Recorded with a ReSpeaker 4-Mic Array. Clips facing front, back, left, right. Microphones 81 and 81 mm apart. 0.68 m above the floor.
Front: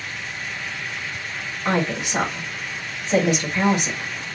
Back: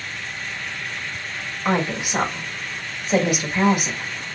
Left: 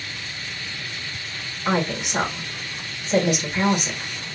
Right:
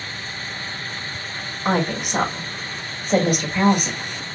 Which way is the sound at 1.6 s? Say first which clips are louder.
Even, right 2 dB; 105° right.